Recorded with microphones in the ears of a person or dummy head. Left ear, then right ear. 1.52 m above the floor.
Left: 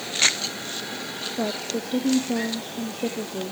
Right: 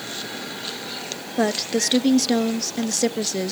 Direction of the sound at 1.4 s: 65° right (ahead or behind).